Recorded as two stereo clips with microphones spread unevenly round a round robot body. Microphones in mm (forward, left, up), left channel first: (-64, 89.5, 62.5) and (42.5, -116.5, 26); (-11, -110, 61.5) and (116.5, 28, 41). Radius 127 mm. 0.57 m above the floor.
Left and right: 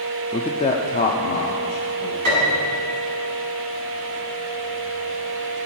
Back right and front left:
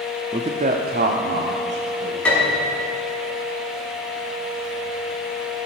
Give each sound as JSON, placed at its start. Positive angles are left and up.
{"t": 0.3, "sound": "a man speaking", "azimuth_deg": 40, "distance_m": 0.7}
{"t": 2.2, "sound": "a piano", "azimuth_deg": -50, "distance_m": 6.0}